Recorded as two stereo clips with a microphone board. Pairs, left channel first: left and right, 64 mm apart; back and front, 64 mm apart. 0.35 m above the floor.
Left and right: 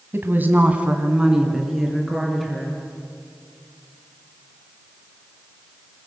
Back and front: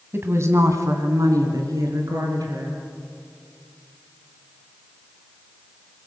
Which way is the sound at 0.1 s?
45° right.